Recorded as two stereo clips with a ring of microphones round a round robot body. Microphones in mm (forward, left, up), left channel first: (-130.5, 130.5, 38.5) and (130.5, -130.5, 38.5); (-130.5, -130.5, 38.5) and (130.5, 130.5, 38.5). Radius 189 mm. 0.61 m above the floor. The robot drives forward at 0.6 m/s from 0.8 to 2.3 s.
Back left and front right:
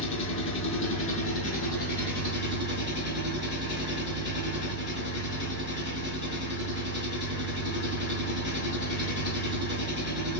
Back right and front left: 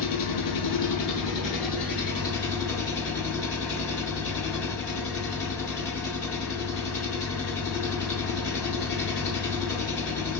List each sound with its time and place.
0.0 s an engine running: 170° right, 1.4 m; by 10.4 s 175° right, 2 m